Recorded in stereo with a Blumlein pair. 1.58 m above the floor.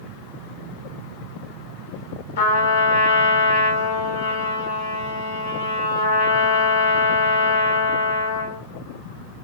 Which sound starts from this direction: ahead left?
A trumpet, at 2.4 s.